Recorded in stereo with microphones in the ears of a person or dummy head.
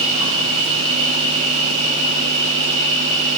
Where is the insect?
30° right (ahead or behind), 2.5 m.